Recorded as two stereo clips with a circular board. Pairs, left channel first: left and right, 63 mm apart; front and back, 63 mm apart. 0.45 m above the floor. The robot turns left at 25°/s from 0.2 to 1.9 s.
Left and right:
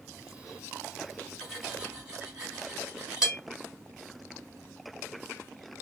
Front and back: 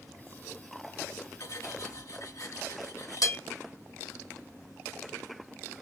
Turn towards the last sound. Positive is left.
turn(degrees=-10)